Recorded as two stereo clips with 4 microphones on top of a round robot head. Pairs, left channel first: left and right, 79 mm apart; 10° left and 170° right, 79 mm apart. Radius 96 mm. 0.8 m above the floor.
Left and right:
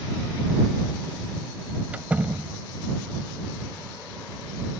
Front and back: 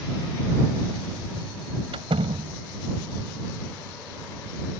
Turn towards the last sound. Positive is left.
turn(degrees=-165)